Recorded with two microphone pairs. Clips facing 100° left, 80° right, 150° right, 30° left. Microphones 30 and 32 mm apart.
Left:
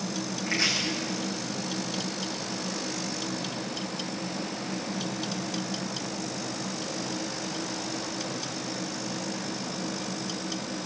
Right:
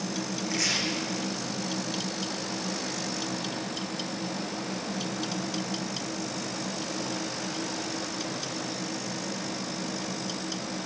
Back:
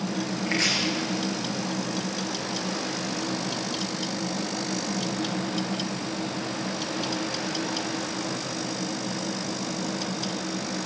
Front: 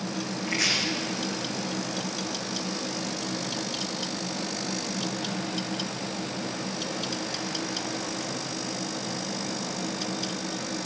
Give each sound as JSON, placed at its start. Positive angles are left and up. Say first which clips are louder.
{"t": 0.5, "sound": "chopping", "louder": "left 4 dB, back 1 dB", "azimuth_deg": 160, "distance_m": 8.5}